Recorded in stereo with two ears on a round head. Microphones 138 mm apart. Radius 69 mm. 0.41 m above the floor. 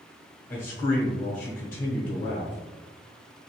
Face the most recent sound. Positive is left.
turn(degrees=15)  # may be behind; listen again after turning